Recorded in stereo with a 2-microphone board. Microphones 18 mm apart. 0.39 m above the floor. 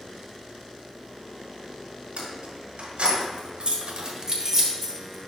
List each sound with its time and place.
2.2 s keys jangling: 70° right (ahead or behind), 2 m; by 5.3 s 10° left (ahead or behind), 1.3 m